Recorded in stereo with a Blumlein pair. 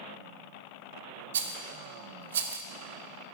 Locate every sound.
1.3 s a rattle: 60° right, 0.6 m